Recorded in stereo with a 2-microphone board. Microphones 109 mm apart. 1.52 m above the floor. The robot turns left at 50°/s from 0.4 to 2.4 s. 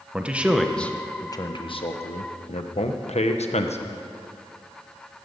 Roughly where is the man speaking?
Behind.